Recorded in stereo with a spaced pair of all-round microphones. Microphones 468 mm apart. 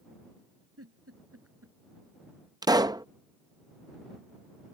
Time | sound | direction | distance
0.8 | a giggle | 30° right (ahead or behind) | ?
2.6 | a pop | 10° right (ahead or behind) | ?